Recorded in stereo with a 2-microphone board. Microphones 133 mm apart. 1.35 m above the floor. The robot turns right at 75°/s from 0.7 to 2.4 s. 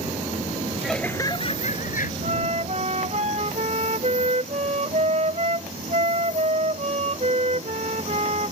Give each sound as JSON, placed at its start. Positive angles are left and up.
{"t": 0.8, "sound": "laughter", "azimuth_deg": -5}
{"t": 2.2, "sound": "a flute", "side_deg": -65}